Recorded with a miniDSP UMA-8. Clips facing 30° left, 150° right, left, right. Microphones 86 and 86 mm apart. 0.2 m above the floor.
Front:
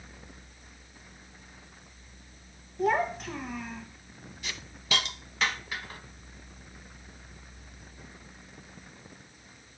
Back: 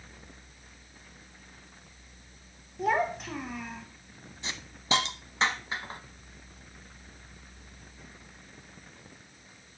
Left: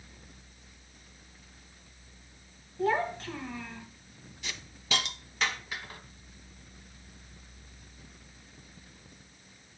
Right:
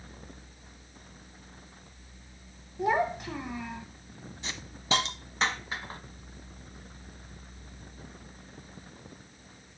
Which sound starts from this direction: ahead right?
A child speaking, at 2.8 s.